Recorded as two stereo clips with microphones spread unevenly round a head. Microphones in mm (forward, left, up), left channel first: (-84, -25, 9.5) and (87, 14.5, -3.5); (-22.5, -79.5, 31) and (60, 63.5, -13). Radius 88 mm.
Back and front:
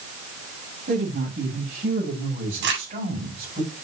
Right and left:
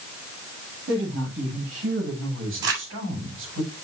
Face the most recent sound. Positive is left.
turn(degrees=45)